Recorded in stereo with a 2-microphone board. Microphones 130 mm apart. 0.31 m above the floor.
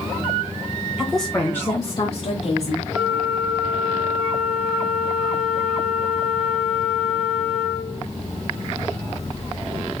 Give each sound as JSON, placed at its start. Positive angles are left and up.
{"t": 1.0, "sound": "a woman speaking", "side_deg": -5, "distance_m": 1.2}
{"t": 2.9, "sound": "a flute", "side_deg": 0, "distance_m": 2.5}